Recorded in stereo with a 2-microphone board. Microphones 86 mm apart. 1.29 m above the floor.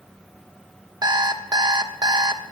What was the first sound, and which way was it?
An alarm clock, 50° right (ahead or behind).